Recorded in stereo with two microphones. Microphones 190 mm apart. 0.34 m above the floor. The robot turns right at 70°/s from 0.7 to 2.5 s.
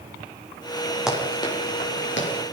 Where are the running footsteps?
5° right (ahead or behind), 9.5 m; by 2.3 s 80° left, 10 m.